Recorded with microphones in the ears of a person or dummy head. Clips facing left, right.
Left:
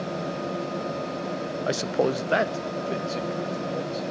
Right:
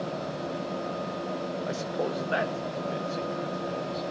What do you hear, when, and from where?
1.7 s a man speaking: 75° left (ahead or behind), 0.6 m; by 4.0 s 40° left (ahead or behind), 2 m